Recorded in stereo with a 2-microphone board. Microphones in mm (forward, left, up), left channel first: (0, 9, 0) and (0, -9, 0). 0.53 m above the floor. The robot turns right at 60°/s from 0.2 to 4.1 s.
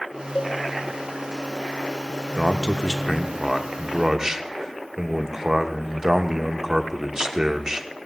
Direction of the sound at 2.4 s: 130° left.